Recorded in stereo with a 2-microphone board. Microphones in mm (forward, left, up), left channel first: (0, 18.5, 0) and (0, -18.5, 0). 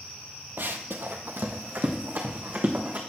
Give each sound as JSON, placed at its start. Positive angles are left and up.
{"t": 0.6, "sound": "running footsteps", "side_deg": -60, "distance_m": 0.7}